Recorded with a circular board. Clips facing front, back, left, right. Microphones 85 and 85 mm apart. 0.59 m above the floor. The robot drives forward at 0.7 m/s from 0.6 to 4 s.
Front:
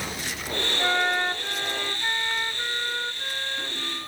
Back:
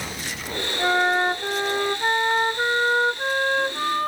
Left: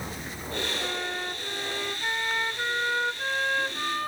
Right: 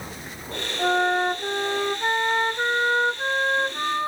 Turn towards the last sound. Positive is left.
turn(degrees=-155)